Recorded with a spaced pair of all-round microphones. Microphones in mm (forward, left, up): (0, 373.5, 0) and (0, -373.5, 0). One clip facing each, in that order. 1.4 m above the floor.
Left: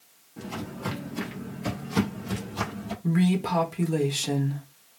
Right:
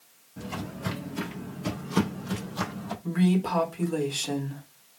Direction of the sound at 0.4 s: 15° right (ahead or behind).